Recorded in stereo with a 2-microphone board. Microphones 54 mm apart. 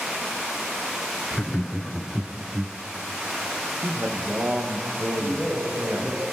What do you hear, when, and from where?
1.3 s laughter: 25° left (ahead or behind), 1.3 m; by 2.8 s 20° right (ahead or behind), 1.3 m
3.8 s a man speaking: 45° right (ahead or behind), 4.5 m
5.2 s a man speaking: 15° left (ahead or behind), 7 m